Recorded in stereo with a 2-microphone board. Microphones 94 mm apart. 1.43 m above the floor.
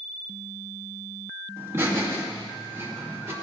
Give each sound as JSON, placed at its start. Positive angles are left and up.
{"t": 1.6, "sound": "laughter", "side_deg": -25, "distance_m": 2.0}